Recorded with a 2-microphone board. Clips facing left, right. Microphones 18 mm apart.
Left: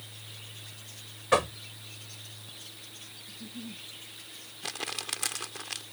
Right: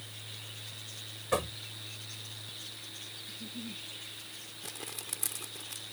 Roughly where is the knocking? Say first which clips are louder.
Left 7 dB; left.